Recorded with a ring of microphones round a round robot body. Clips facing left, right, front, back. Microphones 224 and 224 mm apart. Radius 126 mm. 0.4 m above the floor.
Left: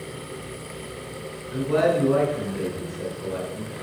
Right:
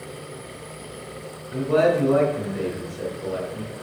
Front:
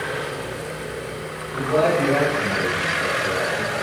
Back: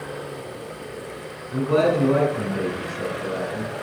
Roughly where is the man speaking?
Behind.